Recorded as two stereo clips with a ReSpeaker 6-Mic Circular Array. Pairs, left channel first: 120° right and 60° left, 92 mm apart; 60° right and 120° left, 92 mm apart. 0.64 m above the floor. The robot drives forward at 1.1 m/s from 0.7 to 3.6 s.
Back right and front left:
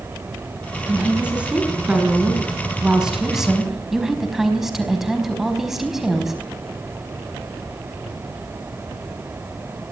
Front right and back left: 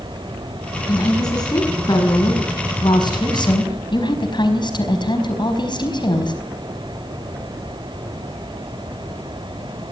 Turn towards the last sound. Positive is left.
turn(degrees=-25)